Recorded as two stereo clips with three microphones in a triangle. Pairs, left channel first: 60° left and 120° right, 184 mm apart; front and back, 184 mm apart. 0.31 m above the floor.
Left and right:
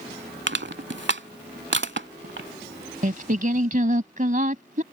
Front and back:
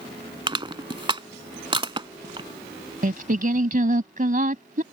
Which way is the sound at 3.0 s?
150° right.